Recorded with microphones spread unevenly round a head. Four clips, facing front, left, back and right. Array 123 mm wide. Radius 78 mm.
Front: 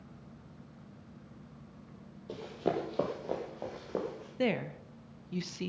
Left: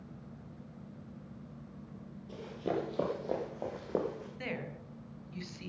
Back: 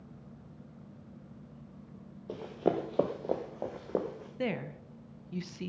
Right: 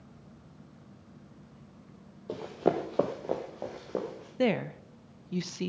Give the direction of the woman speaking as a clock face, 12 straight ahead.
3 o'clock.